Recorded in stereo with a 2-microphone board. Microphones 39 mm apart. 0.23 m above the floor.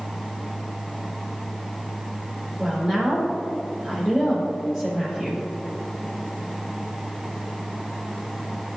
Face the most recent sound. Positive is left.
turn(degrees=-20)  # may be behind; listen again after turning